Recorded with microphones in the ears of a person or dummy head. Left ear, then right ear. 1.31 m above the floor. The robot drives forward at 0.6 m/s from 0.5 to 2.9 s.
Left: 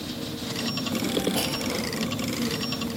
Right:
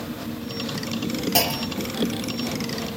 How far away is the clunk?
About 0.5 m.